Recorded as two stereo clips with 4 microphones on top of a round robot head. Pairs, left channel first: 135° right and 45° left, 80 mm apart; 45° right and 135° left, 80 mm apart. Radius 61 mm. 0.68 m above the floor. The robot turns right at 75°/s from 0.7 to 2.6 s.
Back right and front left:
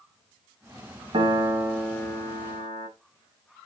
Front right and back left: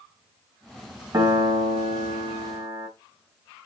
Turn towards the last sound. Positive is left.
turn(degrees=-175)